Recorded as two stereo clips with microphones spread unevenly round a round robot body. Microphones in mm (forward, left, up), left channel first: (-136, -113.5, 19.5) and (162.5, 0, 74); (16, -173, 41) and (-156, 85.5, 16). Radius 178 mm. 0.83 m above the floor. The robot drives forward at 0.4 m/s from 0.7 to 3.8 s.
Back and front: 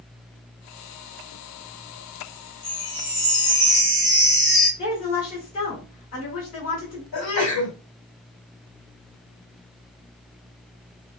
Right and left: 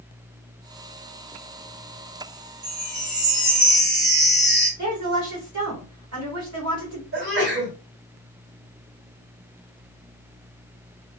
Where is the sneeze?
165° left, 2.5 m.